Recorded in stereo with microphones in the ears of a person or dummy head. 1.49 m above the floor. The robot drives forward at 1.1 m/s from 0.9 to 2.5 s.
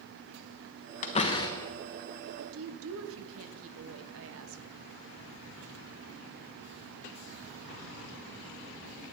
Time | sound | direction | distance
1.0 | a door slam | 40° left (ahead or behind) | 0.6 m
2.4 | a woman speaking | 70° right (ahead or behind) | 1.2 m